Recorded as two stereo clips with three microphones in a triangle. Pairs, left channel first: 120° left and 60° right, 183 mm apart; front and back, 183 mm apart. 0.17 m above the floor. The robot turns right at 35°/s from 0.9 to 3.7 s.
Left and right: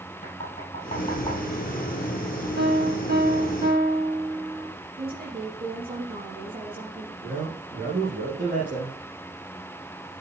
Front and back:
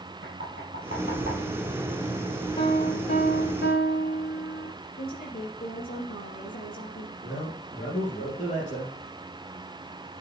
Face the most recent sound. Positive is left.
turn(degrees=-45)